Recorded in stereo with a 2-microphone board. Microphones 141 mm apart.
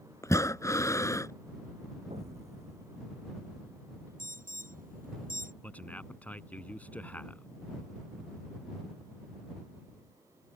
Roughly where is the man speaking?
Centre.